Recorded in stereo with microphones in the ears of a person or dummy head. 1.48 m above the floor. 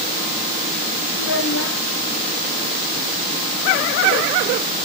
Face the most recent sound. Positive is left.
turn(degrees=60)  # may be behind; listen again after turning